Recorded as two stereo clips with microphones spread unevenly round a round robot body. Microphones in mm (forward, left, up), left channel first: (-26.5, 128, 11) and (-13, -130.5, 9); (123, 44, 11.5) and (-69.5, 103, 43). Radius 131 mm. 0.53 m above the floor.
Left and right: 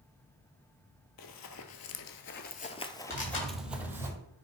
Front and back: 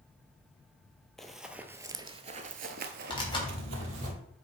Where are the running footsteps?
75° left, 1.0 m; by 4.1 s 165° right, 1.2 m.